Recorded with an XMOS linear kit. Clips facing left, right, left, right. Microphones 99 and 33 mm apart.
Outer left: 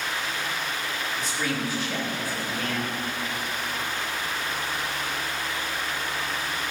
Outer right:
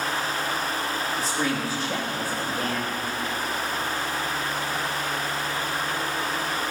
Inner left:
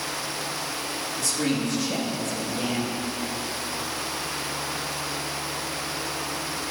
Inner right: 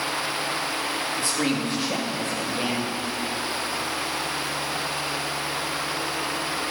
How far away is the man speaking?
About 2 m.